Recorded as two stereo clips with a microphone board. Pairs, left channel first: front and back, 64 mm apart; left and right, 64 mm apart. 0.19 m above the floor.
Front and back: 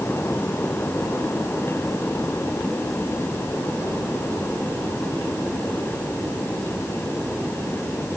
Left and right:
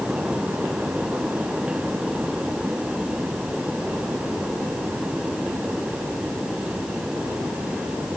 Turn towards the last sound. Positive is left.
No sound to turn to.